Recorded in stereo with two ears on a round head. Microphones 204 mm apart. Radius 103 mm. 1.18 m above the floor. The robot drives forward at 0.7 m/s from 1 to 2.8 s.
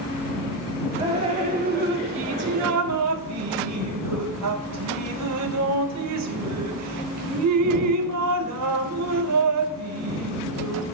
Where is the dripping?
25° right (ahead or behind), 1.3 m; by 10.8 s 85° right, 0.6 m.